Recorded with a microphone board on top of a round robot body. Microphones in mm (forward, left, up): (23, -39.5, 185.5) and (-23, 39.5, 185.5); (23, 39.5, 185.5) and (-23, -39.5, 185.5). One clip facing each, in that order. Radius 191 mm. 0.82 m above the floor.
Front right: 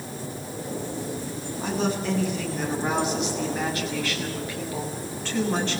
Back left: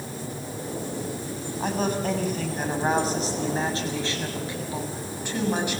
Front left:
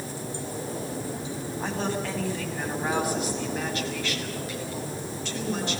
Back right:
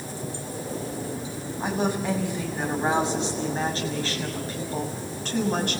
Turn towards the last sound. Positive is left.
turn(degrees=-160)